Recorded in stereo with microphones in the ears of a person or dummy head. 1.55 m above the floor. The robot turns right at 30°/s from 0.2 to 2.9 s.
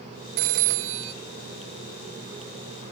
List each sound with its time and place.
0.4 s a phone ringing: 55° right (ahead or behind), 0.8 m; by 1.1 s 60° right (ahead or behind), 0.8 m